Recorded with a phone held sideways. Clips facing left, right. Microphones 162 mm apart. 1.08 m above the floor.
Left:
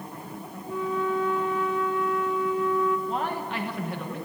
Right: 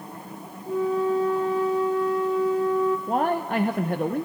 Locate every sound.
0.7 s a flute: 35° right (ahead or behind), 1.0 m
3.1 s a man speaking: 50° right (ahead or behind), 0.7 m